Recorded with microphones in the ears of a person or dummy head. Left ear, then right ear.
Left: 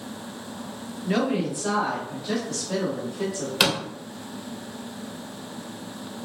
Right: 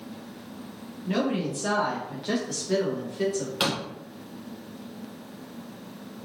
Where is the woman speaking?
15° left (ahead or behind), 0.5 m; by 3.5 s 60° right (ahead or behind), 1.5 m.